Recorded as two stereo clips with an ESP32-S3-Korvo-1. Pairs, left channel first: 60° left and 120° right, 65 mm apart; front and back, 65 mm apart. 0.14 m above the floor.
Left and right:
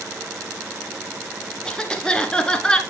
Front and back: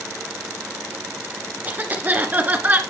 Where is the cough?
130° left, 1.4 m.